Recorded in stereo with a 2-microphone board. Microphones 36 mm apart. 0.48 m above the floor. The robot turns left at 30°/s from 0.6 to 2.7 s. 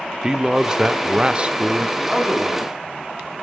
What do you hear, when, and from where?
0.2 s a man speaking: 35° right, 0.8 m; by 1.9 s 75° right, 0.8 m
2.0 s a man speaking: 5° right (ahead or behind), 4.5 m; by 2.7 s 25° right (ahead or behind), 4.5 m